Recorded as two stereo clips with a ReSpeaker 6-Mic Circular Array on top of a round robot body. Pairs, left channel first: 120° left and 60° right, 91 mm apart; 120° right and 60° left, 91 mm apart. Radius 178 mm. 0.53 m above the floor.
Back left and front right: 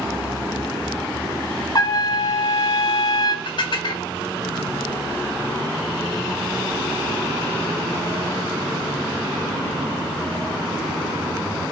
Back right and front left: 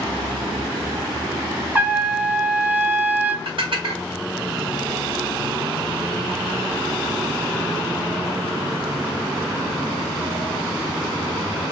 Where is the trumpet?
125° left, 1.1 m.